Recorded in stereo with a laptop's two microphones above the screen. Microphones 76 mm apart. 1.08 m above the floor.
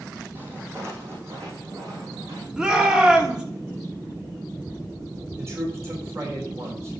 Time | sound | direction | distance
0.3 | footsteps | 30° right (ahead or behind) | 2.5 m
2.6 | a shout | 10° right (ahead or behind) | 2.5 m
5.4 | a man speaking | 35° right (ahead or behind) | 3.5 m